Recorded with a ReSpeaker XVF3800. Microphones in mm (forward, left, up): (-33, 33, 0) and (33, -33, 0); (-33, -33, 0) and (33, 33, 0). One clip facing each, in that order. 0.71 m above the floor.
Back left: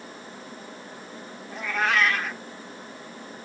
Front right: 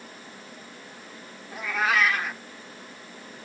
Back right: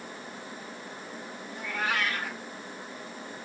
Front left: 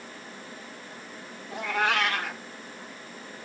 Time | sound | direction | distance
1.5 | a cat meowing | 40° left | 0.9 m